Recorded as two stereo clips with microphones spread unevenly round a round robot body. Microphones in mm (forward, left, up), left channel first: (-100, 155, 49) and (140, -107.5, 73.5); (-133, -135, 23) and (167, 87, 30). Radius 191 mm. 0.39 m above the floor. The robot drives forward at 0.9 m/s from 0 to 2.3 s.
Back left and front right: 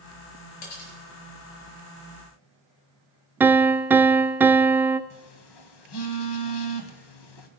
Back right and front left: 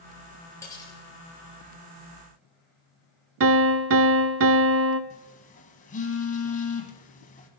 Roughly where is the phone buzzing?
Behind left.